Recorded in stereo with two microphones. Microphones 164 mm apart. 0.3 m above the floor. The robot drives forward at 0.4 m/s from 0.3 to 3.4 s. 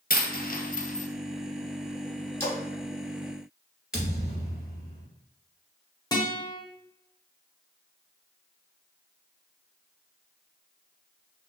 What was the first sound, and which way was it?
A dropped coin, 70° left (ahead or behind).